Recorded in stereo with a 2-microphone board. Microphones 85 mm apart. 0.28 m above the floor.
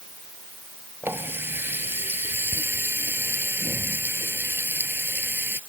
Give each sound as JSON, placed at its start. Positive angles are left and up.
{"t": 1.0, "sound": "a running tap", "side_deg": -25}